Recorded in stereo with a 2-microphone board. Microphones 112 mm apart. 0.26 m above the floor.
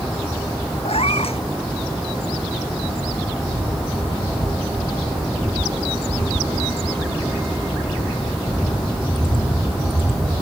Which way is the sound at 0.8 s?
70° left (ahead or behind).